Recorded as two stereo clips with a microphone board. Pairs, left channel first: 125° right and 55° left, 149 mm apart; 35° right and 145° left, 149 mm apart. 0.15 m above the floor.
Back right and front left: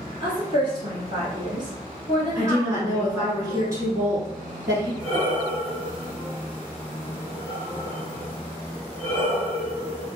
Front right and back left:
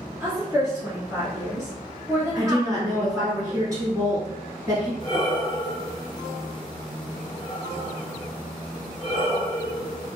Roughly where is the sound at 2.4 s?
Left.